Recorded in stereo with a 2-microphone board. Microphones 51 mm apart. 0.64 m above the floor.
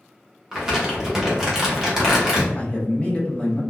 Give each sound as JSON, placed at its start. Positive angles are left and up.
{"t": 0.5, "sound": "crumpling", "side_deg": -10, "distance_m": 1.1}
{"t": 2.5, "sound": "a man speaking", "side_deg": 25, "distance_m": 0.8}